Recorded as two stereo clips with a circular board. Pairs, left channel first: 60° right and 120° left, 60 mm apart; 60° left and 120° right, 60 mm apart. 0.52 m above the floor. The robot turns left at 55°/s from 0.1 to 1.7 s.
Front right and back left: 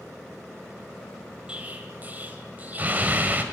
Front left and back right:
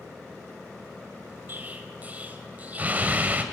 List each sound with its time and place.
1.5 s an explosion: 170° right, 2 m; by 3.4 s straight behind, 2 m